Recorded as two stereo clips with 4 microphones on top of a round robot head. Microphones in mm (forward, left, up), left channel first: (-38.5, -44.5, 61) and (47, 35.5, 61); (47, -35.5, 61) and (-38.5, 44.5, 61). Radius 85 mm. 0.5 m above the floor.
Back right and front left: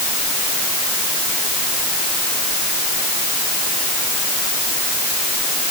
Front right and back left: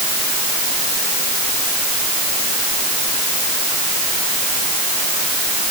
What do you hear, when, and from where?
Only background noise.